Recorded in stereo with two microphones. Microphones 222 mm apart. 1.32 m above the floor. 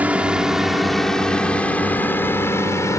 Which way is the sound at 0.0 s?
5° right (ahead or behind).